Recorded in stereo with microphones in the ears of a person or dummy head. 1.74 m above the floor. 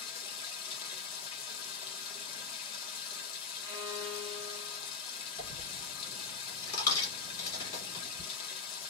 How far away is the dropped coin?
About 1.9 m.